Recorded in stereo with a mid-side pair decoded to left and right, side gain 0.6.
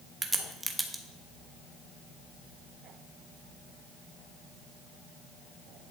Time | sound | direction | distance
0.2 | a crack | 10° right | 1.2 m